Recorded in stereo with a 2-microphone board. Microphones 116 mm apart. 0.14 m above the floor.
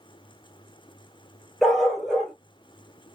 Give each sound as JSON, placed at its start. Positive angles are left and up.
{"t": 1.6, "sound": "a dog barking", "side_deg": 0, "distance_m": 1.5}